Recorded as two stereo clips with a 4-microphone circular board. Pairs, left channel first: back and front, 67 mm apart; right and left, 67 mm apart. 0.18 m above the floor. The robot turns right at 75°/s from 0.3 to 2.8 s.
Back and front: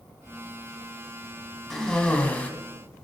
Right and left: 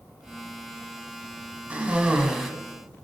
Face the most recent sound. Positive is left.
turn(degrees=-170)